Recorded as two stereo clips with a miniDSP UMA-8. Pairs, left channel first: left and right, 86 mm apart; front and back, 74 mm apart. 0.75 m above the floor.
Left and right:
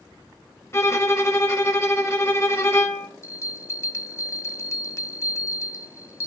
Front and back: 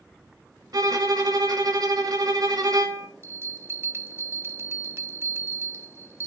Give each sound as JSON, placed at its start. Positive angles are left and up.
{"t": 0.7, "sound": "a violin", "azimuth_deg": 145, "distance_m": 1.1}
{"t": 3.2, "sound": "a bell", "azimuth_deg": 135, "distance_m": 0.7}